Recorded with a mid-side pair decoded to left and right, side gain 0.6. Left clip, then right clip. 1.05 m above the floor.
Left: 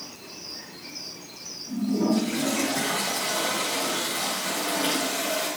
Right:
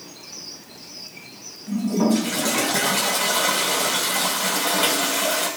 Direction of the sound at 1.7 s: 65° right.